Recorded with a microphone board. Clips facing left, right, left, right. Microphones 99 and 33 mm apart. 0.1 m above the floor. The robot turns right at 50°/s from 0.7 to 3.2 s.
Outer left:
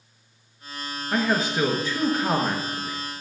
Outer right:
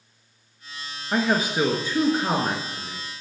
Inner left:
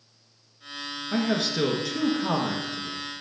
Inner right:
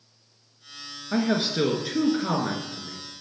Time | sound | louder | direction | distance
1.1 | a man speaking | outer right 1 dB, inner right 2 dB | 10° right (ahead or behind) | 1.1 m